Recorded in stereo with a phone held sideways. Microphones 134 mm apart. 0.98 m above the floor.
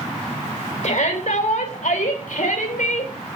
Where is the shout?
70° left (ahead or behind), 4.5 m; by 3.1 s 80° left, 4 m.